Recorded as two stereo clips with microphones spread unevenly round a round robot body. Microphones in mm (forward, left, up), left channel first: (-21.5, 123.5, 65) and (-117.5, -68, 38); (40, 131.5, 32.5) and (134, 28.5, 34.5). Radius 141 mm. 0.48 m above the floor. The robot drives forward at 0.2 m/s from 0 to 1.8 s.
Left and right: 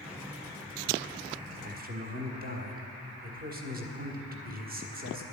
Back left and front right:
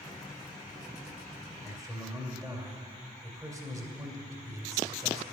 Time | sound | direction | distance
1.6 | a man speaking | 130° right | 1.7 m